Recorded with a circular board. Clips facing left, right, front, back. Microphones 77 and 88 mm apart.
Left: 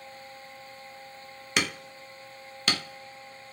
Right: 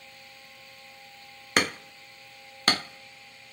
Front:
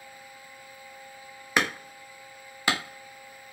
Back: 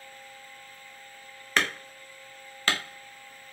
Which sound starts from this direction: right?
Hammering, at 1.6 s.